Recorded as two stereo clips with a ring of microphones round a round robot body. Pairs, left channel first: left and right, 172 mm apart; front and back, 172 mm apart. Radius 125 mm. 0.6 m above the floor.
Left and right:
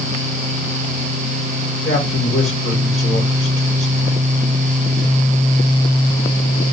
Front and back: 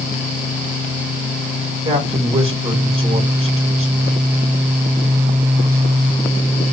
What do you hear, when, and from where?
1.8 s a man speaking: 120° left, 4.5 m